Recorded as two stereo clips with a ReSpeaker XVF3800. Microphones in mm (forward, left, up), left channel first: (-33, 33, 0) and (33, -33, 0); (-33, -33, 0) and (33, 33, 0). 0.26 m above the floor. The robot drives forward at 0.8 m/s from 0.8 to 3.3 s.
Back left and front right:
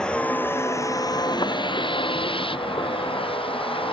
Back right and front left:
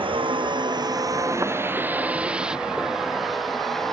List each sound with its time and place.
0.0 s a vehicle: 55° left; by 3.9 s 140° left